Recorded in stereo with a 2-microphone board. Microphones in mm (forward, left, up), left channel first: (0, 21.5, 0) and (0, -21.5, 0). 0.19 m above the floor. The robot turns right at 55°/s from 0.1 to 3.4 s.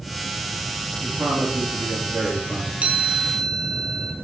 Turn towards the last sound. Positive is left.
turn(degrees=-5)